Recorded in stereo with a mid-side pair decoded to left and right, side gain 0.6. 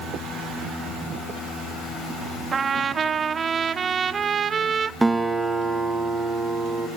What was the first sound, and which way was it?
A trumpet, 35° right.